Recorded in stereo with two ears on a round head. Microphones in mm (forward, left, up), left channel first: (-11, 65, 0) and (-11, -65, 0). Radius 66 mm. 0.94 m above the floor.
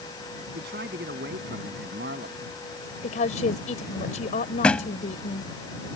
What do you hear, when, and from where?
0.6 s a man speaking: 75° right (ahead or behind); by 2.4 s 85° right
3.0 s a woman speaking: 55° left (ahead or behind)
4.6 s a thud: 10° left (ahead or behind)